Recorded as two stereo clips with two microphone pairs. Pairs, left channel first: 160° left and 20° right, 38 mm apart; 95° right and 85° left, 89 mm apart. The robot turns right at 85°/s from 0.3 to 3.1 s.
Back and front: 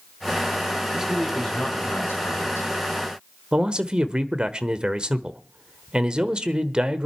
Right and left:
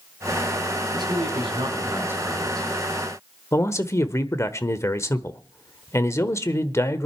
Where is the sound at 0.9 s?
45° left, 5.5 m; by 2.7 s 160° right, 5.5 m.